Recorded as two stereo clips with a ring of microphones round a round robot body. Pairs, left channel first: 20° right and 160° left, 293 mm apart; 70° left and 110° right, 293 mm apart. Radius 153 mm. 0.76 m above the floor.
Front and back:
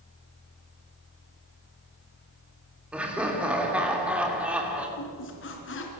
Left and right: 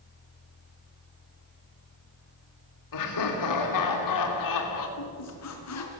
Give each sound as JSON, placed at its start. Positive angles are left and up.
{"t": 2.9, "sound": "laughter", "azimuth_deg": 70, "distance_m": 3.0}
{"t": 5.0, "sound": "a squeak", "azimuth_deg": 30, "distance_m": 3.5}